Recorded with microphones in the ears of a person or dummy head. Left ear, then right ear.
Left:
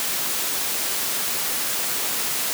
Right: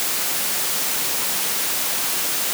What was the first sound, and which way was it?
Only background noise.